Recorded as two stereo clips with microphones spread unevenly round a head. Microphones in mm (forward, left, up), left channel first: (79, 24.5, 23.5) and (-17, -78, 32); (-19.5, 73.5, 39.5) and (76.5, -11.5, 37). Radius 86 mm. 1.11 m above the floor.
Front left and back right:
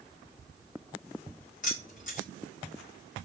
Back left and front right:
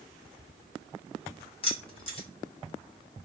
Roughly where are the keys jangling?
Left.